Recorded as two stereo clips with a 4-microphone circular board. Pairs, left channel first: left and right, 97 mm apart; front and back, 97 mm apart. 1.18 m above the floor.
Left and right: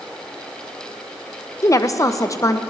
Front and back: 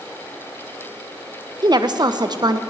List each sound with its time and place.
1.6 s a woman speaking: 140° left, 0.5 m